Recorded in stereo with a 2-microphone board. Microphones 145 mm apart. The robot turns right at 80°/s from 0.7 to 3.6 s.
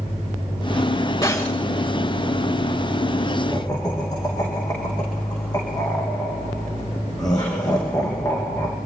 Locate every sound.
1.2 s breaking glass: 25° left (ahead or behind), 7 m; by 1.6 s centre (ahead or behind), 7 m
3.5 s laughter: 20° left (ahead or behind), 6 m; by 8.8 s 25° left (ahead or behind), 6 m